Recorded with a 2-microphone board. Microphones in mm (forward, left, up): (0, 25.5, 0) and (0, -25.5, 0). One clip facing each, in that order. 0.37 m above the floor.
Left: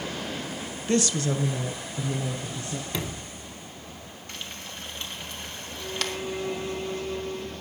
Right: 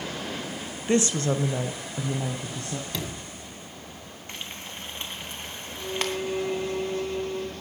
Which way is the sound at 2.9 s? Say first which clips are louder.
Left 1 dB; 10° left (ahead or behind).